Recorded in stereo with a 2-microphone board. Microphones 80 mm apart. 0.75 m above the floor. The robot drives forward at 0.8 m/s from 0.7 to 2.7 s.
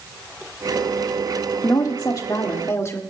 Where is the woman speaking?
50° left (ahead or behind), 1.3 m; by 3.0 s 40° left (ahead or behind), 1.7 m.